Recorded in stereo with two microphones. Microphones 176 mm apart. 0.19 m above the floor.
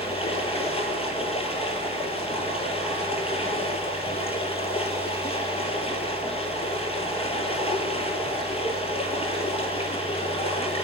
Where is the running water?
35° left (ahead or behind), 1.5 m.